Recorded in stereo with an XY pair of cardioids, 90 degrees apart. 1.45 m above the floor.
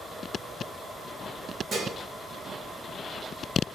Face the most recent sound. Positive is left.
turn(degrees=-60)